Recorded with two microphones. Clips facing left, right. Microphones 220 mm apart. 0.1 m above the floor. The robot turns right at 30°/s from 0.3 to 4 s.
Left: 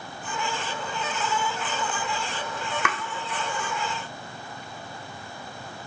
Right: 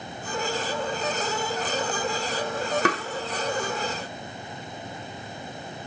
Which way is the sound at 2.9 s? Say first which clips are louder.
Right 7 dB; 35° right (ahead or behind).